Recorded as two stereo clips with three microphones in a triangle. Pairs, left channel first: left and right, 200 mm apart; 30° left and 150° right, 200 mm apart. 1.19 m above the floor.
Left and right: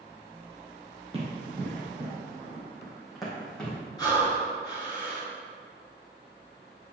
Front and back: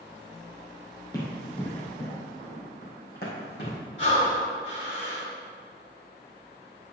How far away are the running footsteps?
About 2.5 m.